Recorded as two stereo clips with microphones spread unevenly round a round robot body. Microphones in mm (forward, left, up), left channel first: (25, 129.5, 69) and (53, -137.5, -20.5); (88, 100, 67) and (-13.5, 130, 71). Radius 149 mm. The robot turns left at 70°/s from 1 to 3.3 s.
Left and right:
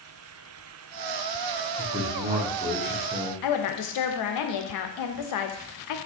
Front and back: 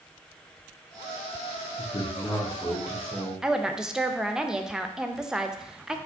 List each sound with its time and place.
1.8 s a man speaking: 30° right, 0.8 m; by 3.3 s 140° right, 0.8 m
3.4 s a woman speaking: 75° left, 0.6 m